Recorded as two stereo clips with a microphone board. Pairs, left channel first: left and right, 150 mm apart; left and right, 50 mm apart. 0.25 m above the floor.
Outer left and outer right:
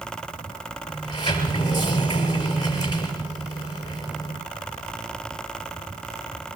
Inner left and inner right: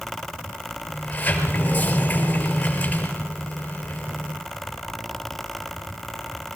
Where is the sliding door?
30° left (ahead or behind), 6 m.